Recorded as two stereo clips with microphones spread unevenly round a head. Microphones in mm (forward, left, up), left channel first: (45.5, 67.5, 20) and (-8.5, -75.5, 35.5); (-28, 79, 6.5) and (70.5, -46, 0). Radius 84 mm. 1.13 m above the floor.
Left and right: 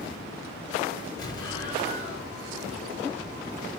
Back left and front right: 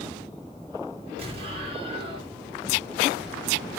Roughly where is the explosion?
Ahead.